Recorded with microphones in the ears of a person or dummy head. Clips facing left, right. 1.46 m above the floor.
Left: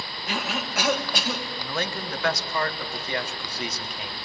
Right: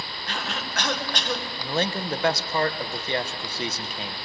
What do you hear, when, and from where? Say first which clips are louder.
0.3 s a cough: left 4 dB; 5° left (ahead or behind), 1.4 m
1.6 s a man speaking: right 6 dB; 35° right (ahead or behind), 1.4 m